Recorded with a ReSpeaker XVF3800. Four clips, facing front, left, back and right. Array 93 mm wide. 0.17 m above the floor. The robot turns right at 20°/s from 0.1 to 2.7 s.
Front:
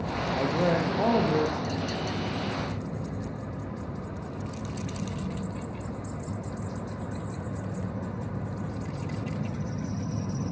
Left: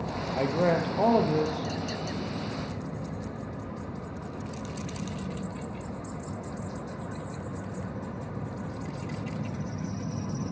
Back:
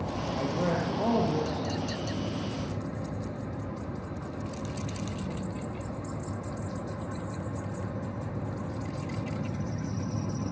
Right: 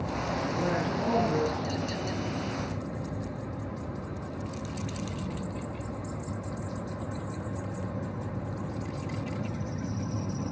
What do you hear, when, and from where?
0.4 s a man speaking: 60° left, 3 m; by 1.7 s 85° left, 3 m